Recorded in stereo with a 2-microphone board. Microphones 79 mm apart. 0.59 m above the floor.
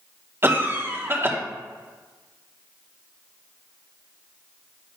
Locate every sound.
0.4 s a cough: 30° right (ahead or behind), 1.0 m